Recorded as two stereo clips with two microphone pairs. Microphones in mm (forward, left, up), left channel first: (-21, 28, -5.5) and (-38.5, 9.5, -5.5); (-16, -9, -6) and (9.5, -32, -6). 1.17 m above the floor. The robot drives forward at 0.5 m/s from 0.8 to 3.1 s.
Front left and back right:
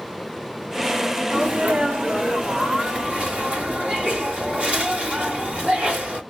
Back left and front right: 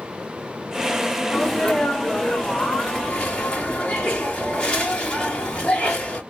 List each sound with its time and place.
1.3 s a sneeze: 145° right, 1.9 m; by 6.2 s 155° right, 2.5 m